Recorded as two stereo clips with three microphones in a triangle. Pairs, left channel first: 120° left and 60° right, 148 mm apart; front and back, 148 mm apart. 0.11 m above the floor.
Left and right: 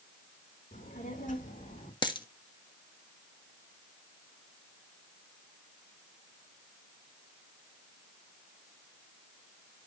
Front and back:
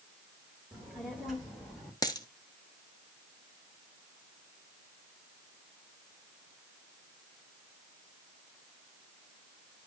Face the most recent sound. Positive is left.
turn(degrees=60)